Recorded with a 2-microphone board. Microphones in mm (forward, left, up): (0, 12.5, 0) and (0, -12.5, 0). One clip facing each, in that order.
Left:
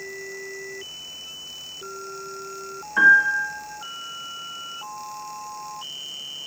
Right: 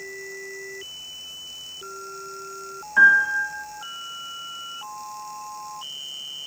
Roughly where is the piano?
Centre.